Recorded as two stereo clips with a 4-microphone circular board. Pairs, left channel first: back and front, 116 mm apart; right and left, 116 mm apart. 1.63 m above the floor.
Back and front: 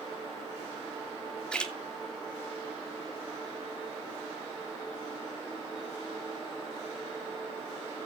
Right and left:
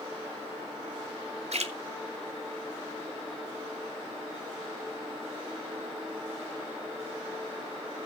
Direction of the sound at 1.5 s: 100° left.